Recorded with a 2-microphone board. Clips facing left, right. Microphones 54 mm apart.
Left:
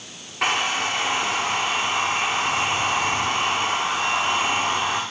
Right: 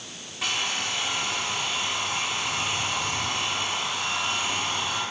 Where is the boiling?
I don't hear boiling.